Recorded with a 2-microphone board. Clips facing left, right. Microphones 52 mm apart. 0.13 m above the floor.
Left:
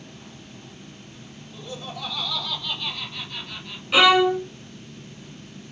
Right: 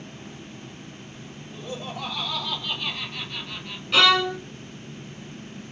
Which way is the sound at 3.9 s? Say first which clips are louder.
Left 3 dB; 15° left (ahead or behind).